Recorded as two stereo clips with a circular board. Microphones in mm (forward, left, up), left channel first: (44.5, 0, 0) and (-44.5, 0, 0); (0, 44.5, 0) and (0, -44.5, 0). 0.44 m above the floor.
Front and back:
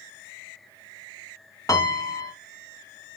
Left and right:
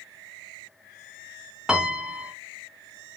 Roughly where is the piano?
Ahead.